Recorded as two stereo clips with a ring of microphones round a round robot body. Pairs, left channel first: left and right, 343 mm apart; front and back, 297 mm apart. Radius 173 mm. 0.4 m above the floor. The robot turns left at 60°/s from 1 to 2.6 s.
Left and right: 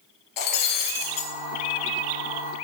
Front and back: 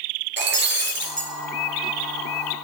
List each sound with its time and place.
0.4 s breaking glass: 125° left, 2.5 m; by 1.3 s 110° left, 2.5 m